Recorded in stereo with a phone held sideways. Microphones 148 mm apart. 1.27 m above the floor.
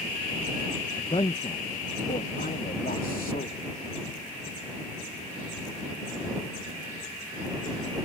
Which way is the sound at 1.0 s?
35° left (ahead or behind).